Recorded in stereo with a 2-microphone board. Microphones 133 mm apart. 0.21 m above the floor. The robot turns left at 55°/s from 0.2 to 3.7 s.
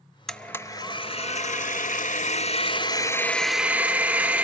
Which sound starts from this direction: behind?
A blender, at 0.3 s.